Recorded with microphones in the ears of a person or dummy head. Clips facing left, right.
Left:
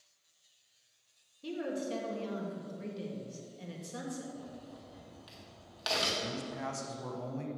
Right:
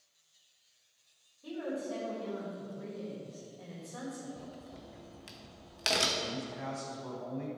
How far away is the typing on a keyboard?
I don't hear typing on a keyboard.